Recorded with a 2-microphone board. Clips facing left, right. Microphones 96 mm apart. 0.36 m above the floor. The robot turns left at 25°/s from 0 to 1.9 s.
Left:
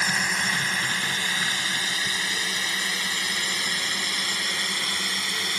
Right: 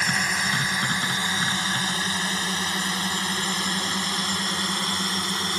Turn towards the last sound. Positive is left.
turn(degrees=-35)  # may be behind; listen again after turning